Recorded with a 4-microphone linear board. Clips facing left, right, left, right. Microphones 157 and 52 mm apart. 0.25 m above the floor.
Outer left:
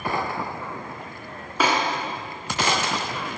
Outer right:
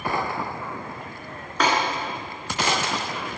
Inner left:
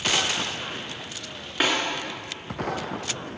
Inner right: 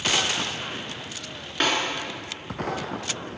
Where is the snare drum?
5° left (ahead or behind), 2.0 m.